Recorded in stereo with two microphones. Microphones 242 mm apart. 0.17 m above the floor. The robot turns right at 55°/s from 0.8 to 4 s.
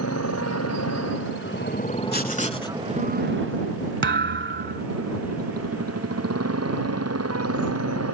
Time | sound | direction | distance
0.0 | a motorcycle | 90° left | ?
2.1 | writing | 125° left | ?
4.0 | a thud | 50° right (ahead or behind) | ?